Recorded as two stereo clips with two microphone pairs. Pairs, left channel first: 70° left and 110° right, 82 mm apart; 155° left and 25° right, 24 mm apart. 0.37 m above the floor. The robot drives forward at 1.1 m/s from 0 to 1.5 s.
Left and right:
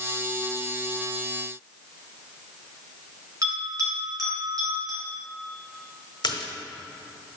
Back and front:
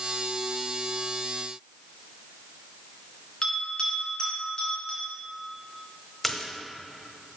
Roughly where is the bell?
Behind right.